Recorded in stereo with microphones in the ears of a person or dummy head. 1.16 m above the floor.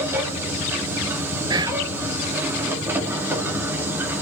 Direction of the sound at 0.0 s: 15° right (ahead or behind).